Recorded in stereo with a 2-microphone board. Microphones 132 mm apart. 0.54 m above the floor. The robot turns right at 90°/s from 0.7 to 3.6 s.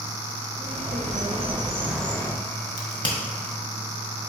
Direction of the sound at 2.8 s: 65° left (ahead or behind).